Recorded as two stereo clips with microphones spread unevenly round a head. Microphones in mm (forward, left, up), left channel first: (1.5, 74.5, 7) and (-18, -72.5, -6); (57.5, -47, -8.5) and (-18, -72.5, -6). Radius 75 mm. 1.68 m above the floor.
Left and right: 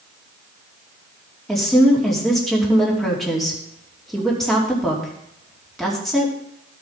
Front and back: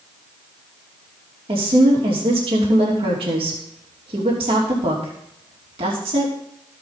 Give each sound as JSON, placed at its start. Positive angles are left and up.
{"t": 1.5, "sound": "a woman speaking", "azimuth_deg": 170, "distance_m": 2.5}